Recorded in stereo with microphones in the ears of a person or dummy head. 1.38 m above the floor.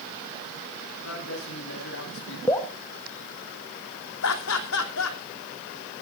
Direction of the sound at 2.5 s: 15° left (ahead or behind).